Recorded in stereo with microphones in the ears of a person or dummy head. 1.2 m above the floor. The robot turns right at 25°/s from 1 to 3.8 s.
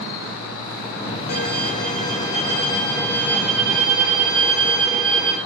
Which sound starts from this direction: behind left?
A violin, at 1.3 s.